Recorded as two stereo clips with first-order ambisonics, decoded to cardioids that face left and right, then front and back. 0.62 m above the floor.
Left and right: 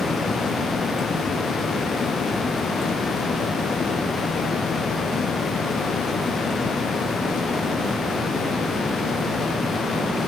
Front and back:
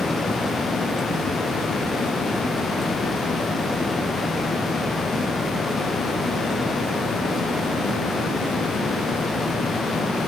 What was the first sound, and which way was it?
Only background noise.